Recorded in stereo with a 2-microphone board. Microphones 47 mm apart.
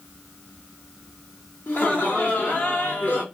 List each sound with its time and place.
1.7 s laughter: 40° left (ahead or behind), 1.2 m